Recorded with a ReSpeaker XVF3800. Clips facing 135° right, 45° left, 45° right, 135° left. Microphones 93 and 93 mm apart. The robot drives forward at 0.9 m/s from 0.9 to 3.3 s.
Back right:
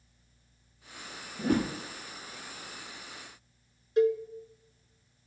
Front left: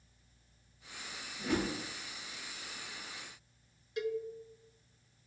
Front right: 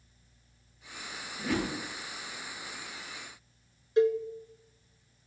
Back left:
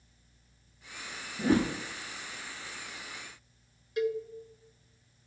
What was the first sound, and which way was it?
A whoosh, 170° right.